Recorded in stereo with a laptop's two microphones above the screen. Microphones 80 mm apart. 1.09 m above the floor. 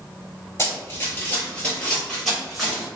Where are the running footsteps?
35° left (ahead or behind), 1.3 m; by 2.9 s 5° right (ahead or behind), 2.0 m.